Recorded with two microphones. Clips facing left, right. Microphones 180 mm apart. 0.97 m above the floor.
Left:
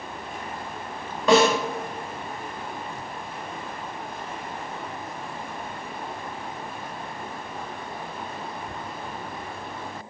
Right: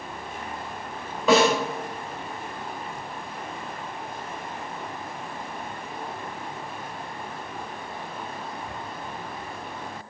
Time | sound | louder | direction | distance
1.3 | a snare drum | left 1 dB | centre (ahead or behind) | 3.5 m